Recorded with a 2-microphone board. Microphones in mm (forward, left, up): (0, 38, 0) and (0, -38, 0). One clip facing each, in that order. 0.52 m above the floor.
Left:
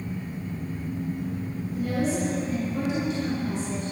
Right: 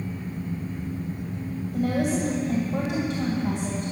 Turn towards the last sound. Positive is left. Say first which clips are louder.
# right 2 dB
turn(degrees=-45)  # may be behind; listen again after turning